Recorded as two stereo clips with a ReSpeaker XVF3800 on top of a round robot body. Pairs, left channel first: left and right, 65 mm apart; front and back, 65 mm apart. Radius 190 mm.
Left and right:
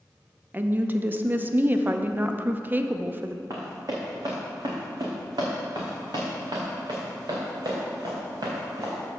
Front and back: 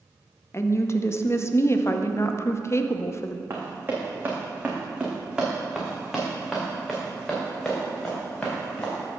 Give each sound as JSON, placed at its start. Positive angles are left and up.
{"t": 0.5, "sound": "a woman speaking", "azimuth_deg": -35, "distance_m": 0.9}
{"t": 3.5, "sound": "running footsteps", "azimuth_deg": -130, "distance_m": 2.5}